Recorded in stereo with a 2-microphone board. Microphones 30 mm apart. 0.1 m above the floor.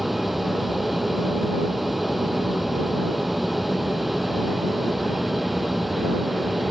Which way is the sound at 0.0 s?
Centre (ahead or behind).